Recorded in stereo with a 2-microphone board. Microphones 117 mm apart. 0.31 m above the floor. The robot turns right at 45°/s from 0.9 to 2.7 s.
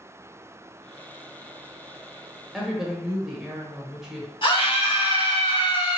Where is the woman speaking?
Centre (ahead or behind), 0.9 m; by 4.3 s 5° right (ahead or behind), 0.9 m.